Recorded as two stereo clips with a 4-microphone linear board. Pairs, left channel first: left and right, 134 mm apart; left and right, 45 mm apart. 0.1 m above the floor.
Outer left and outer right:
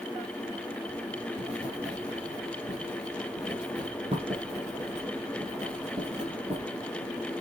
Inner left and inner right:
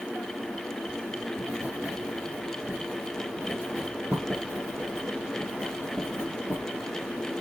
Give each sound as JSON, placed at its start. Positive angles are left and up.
{"t": 0.9, "sound": "writing", "side_deg": -50, "distance_m": 4.5}